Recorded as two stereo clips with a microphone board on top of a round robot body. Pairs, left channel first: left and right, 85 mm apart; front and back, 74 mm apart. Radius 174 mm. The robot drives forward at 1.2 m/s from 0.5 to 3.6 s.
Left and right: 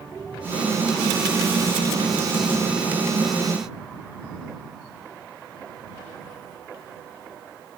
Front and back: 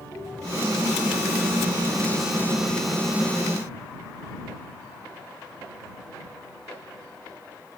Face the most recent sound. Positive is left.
No sound to turn to.